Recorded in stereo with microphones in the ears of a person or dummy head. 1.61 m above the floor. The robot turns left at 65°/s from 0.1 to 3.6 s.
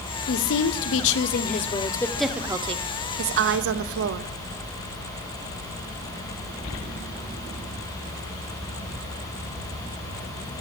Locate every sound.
0.3 s a woman speaking: 125° left, 0.7 m; by 4.3 s 90° right, 0.7 m